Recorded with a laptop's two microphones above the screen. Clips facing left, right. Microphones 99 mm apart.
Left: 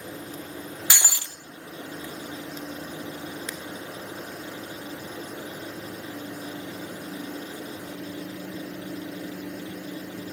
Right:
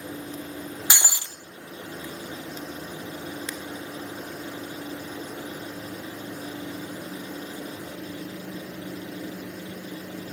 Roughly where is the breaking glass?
Right.